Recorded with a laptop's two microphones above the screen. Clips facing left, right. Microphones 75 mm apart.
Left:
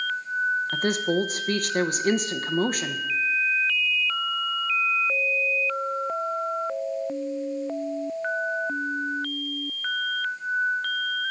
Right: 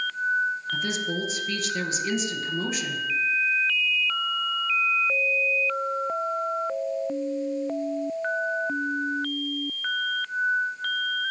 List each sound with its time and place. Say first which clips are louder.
0.7 s a woman speaking: left 5 dB; 50° left (ahead or behind), 0.9 m